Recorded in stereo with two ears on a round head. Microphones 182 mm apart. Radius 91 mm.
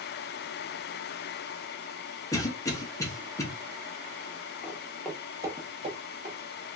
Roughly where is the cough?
Centre.